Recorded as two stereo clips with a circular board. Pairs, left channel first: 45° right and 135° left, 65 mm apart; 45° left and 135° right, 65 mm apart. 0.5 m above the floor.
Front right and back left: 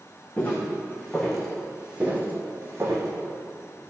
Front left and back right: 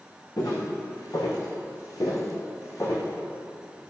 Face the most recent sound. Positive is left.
turn(degrees=95)